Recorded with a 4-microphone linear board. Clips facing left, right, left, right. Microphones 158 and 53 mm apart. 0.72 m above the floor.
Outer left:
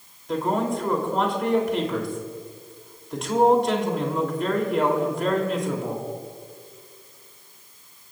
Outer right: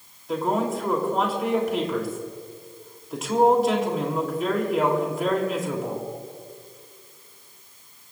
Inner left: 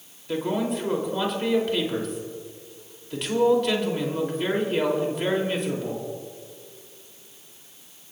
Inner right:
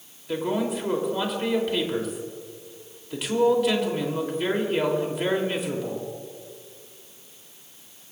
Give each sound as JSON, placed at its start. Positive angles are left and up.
{"t": 0.3, "sound": "a man speaking", "side_deg": -5, "distance_m": 3.0}